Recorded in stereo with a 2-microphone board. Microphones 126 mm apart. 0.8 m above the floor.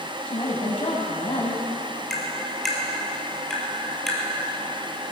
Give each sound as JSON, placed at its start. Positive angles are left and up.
{"t": 0.3, "sound": "a woman speaking", "side_deg": 50, "distance_m": 5.0}
{"t": 2.1, "sound": "tapping", "side_deg": 0, "distance_m": 3.0}